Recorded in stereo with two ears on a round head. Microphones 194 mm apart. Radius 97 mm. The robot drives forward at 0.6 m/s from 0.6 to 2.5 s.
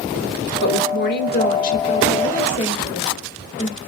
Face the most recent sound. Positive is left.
turn(degrees=35)  # may be behind; listen again after turning